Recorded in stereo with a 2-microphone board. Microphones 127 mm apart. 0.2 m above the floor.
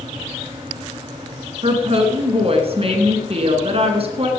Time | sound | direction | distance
1.6 | a woman speaking | 50° right (ahead or behind) | 2.5 m